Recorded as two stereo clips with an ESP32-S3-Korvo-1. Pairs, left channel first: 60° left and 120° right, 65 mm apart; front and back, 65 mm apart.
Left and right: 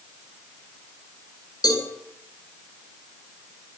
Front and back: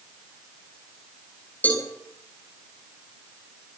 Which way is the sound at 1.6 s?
65° left.